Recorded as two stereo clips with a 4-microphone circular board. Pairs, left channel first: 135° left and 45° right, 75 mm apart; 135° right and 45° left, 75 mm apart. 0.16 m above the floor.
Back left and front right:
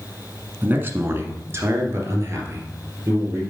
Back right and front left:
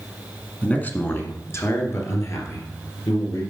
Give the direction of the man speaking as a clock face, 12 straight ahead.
3 o'clock.